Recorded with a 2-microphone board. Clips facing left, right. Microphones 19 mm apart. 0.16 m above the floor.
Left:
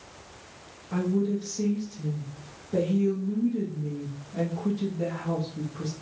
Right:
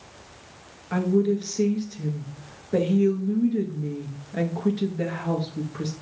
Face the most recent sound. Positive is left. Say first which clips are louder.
# right 5 dB
turn(degrees=-60)  # may be behind; listen again after turning